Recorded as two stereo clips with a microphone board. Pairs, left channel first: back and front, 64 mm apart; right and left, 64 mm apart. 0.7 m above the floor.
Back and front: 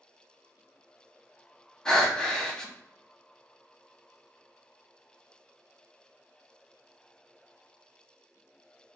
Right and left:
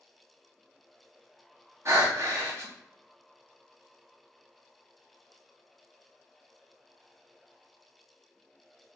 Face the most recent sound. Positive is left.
turn(degrees=105)